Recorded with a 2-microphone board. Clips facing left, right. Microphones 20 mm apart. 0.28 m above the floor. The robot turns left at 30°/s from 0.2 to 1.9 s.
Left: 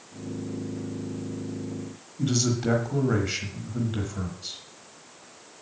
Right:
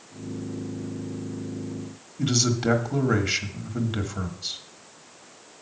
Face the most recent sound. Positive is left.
turn(degrees=-25)  # may be behind; listen again after turning